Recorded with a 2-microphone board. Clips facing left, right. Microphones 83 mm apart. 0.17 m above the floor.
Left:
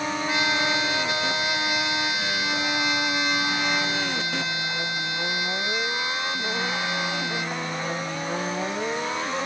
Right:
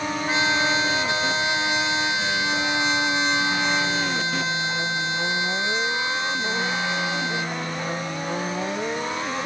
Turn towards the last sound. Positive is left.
turn(degrees=-25)  # may be behind; listen again after turning